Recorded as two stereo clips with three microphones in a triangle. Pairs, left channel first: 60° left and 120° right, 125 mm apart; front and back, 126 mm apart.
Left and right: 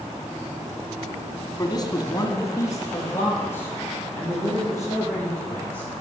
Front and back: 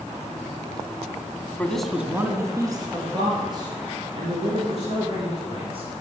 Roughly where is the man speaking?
Ahead left.